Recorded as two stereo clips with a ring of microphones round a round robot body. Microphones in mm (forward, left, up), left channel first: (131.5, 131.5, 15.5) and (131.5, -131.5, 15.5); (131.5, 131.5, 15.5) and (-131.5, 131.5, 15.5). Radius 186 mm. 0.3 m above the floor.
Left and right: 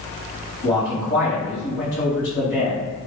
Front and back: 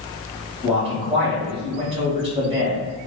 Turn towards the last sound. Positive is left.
turn(degrees=120)